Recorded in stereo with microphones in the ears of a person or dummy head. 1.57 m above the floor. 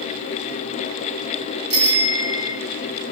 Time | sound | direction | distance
1.7 | a bicycle bell | 25° left (ahead or behind) | 3 m